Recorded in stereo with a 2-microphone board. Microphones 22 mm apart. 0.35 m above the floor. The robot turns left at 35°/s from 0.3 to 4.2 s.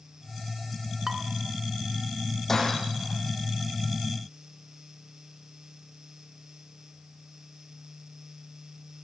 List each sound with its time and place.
1.1 s dishes clattering: 15° right (ahead or behind), 2.5 m; by 1.2 s 20° right (ahead or behind), 2.5 m
2.5 s breaking glass: 15° left (ahead or behind), 8 m; by 3.1 s 5° right (ahead or behind), 8 m